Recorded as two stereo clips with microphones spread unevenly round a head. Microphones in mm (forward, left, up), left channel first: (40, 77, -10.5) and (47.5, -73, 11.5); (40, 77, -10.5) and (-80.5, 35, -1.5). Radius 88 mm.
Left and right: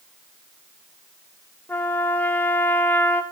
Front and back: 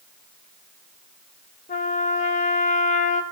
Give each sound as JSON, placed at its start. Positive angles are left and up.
{"t": 1.7, "sound": "a trumpet", "azimuth_deg": 10, "distance_m": 1.2}